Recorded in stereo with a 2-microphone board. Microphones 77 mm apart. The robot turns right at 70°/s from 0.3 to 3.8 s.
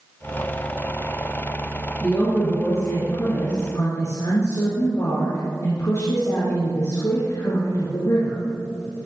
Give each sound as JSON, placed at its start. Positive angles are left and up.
{"t": 2.0, "sound": "a woman speaking", "azimuth_deg": -10, "distance_m": 2.5}